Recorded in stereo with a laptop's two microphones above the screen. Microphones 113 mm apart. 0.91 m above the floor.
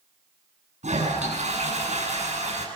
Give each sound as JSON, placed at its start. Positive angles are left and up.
{"t": 0.8, "sound": "a toilet flushing", "side_deg": -85, "distance_m": 8.5}